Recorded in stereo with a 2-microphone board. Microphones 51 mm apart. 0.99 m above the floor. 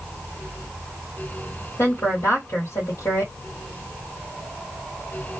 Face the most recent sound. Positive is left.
turn(degrees=70)  # may be behind; listen again after turning